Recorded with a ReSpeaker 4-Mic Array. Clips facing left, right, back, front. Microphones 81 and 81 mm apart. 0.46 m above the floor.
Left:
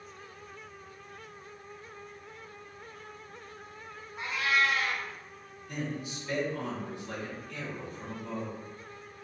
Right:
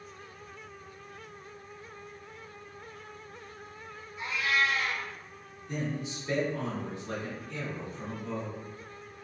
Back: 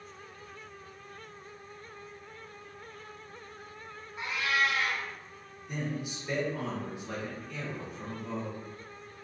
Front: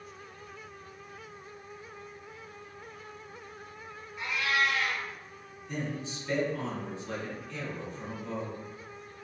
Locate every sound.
4.2 s a cat meowing: 120° left, 1.2 m
5.7 s a man speaking: 120° right, 1.1 m